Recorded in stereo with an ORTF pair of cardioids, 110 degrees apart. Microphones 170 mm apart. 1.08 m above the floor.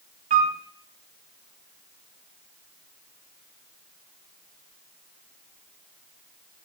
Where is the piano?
55° right, 2 m.